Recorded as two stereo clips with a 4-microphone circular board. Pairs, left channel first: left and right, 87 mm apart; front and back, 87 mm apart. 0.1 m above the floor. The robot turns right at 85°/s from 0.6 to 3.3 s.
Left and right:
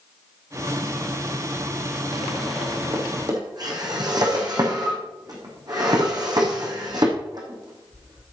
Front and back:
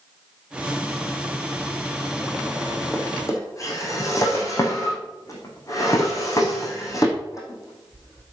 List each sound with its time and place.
2.9 s a drawer: 80° right, 3.5 m; by 8.2 s 50° right, 3.5 m